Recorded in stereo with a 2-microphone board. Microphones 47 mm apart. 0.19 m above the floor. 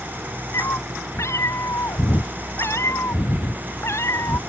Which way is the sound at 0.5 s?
85° left.